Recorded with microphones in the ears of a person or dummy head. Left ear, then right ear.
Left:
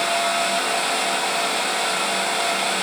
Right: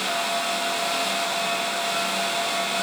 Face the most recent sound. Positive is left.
No sound to turn to.